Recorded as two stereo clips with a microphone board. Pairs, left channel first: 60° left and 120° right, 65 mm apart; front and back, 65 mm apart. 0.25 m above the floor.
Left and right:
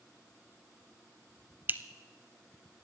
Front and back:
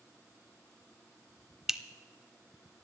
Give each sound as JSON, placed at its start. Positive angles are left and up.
{"t": 1.7, "sound": "a clink", "azimuth_deg": -100, "distance_m": 0.5}